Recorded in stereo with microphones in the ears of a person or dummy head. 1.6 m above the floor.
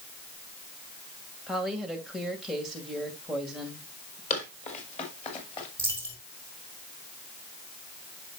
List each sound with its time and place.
1.5 s a woman speaking: 5° right (ahead or behind), 1.9 m
4.3 s running footsteps: 50° left (ahead or behind), 3 m; by 5.7 s 35° left (ahead or behind), 2.5 m
5.8 s a dropped coin: 20° left (ahead or behind), 1.4 m